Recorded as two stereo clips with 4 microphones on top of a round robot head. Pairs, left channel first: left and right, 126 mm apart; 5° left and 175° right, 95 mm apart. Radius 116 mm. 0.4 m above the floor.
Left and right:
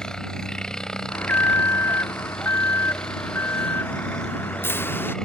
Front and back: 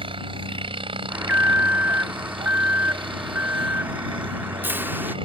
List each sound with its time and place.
0.0 s a helicopter: 175° left
1.1 s an alarm: 140° left